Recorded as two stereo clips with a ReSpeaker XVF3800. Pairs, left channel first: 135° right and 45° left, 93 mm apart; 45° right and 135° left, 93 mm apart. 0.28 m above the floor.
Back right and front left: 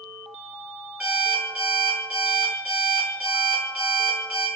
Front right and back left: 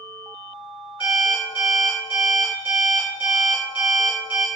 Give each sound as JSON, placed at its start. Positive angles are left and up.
{"t": 1.0, "sound": "an alarm clock", "azimuth_deg": -30, "distance_m": 1.8}